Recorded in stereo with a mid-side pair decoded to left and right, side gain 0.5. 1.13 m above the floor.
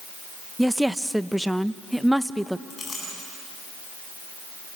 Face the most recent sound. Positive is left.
turn(degrees=40)